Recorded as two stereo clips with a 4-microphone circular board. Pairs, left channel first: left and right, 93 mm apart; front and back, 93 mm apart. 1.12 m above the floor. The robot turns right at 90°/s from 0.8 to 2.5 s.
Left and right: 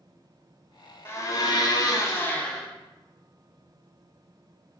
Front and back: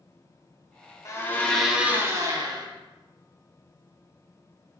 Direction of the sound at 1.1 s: 40° left.